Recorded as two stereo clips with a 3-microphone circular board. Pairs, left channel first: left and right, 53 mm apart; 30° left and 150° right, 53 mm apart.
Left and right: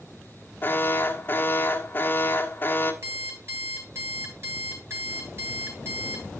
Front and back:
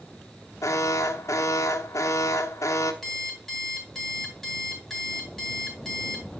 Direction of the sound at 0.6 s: 40° left.